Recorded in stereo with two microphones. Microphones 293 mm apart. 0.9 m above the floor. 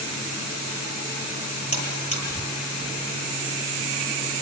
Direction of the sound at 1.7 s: 55° left (ahead or behind).